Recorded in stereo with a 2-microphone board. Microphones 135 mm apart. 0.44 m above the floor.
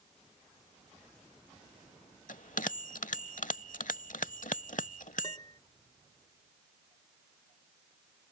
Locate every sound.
2.3 s a bell: 75° left (ahead or behind)
5.2 s a piano: 30° left (ahead or behind)